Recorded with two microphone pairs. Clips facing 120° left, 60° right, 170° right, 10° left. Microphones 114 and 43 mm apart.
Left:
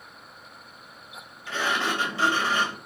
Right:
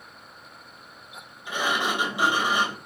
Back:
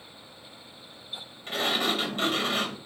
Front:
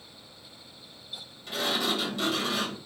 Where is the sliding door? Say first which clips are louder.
Right 1 dB, back 2 dB; 135° right, 2 m.